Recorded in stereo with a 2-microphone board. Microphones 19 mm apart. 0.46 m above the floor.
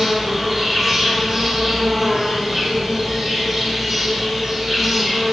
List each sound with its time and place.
0.0 s an insect: 5° left (ahead or behind), 1.8 m